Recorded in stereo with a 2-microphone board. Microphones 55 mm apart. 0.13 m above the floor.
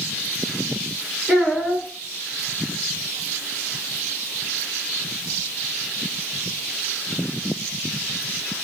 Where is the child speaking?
10° right (ahead or behind), 1.4 m.